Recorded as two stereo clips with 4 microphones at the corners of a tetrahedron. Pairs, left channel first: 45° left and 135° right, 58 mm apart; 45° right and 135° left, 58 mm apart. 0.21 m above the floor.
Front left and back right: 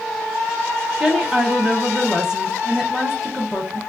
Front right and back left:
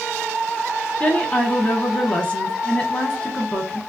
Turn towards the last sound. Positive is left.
turn(degrees=-80)